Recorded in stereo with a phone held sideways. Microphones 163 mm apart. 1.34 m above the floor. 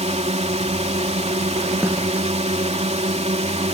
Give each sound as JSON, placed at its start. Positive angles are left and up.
{"t": 0.0, "sound": "a drone", "side_deg": -40}
{"t": 1.8, "sound": "a snare drum", "side_deg": -15}